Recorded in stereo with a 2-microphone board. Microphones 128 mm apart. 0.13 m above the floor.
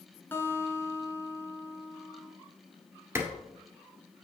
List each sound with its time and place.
0.3 s a guitar: 15° left (ahead or behind), 1.3 m
3.1 s a clap: 20° right (ahead or behind), 1.9 m